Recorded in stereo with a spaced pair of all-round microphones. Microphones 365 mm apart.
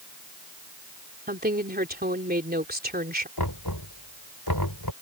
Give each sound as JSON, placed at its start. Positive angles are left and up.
{"t": 1.3, "sound": "a woman speaking", "side_deg": -25}
{"t": 3.4, "sound": "knocking", "side_deg": 75}